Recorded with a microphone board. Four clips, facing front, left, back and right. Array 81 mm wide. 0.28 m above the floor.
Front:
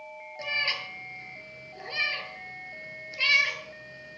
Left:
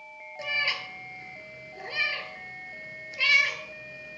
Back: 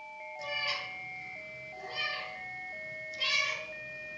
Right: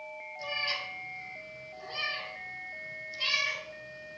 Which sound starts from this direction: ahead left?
A cat meowing, at 0.4 s.